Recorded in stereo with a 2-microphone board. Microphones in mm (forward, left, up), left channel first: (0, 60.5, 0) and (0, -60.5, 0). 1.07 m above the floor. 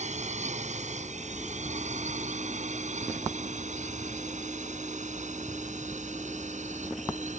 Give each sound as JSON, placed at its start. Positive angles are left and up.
{"t": 0.0, "sound": "a drone", "side_deg": -75}